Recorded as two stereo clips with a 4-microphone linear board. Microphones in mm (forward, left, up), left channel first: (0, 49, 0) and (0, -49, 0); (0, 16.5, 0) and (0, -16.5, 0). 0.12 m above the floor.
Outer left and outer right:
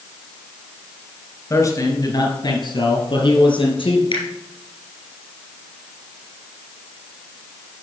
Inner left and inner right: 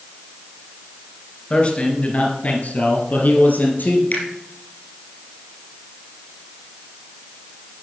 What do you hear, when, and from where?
1.5 s a man speaking: 35° left (ahead or behind), 1.6 m; by 4.0 s 60° left (ahead or behind), 3 m
4.1 s a finger snap: 60° left (ahead or behind), 2 m